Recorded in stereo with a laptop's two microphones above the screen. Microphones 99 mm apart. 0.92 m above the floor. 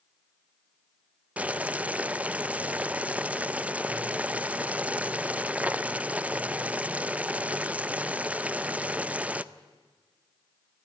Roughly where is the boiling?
Centre.